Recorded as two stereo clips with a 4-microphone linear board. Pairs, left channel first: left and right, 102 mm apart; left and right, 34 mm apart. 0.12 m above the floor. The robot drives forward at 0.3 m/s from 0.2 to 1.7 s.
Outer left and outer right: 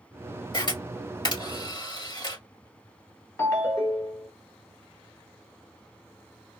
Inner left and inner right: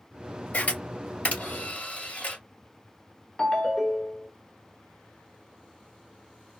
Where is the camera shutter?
50° left (ahead or behind), 2.0 m; by 2.4 s 45° left (ahead or behind), 2 m.